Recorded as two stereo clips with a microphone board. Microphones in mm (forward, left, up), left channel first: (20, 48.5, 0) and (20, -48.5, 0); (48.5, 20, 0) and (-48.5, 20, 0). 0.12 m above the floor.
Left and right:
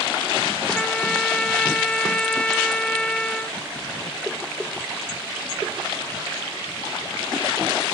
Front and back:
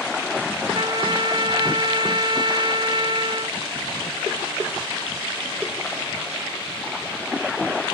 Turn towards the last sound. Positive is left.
turn(degrees=170)